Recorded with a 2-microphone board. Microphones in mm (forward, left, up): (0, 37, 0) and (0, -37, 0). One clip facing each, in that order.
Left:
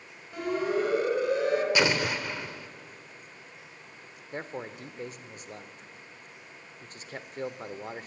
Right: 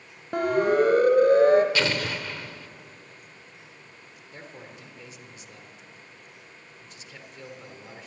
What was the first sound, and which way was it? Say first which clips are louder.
A siren: right 7 dB; 60° right (ahead or behind).